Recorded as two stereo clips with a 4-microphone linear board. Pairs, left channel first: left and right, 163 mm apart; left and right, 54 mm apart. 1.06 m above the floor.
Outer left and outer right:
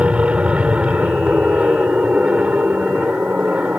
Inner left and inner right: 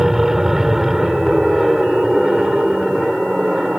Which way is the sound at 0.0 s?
5° right (ahead or behind).